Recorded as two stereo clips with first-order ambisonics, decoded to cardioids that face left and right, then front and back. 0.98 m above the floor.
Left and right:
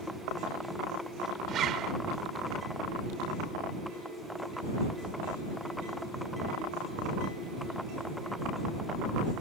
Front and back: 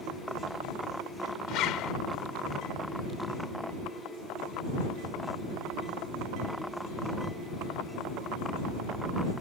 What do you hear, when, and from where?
1.5 s a zipper: 40° right